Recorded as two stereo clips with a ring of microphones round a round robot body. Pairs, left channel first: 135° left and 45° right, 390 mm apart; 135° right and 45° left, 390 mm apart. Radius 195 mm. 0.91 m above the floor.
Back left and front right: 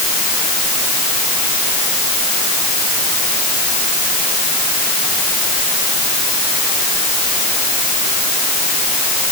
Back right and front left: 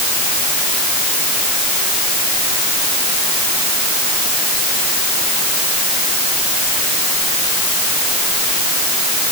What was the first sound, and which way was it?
Only background noise.